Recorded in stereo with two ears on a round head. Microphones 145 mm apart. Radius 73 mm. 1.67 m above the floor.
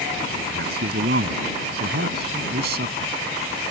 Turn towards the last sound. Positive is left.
turn(degrees=-70)  # may be behind; listen again after turning